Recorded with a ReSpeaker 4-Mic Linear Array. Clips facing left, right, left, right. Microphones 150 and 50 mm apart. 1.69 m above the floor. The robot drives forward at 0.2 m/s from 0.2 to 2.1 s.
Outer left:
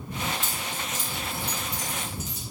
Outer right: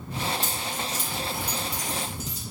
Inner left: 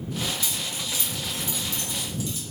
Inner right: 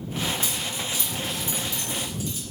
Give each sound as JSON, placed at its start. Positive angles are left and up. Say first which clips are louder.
{"t": 0.4, "sound": "keys jangling", "louder": "outer right 2 dB, inner right 2 dB", "side_deg": -40, "distance_m": 0.8}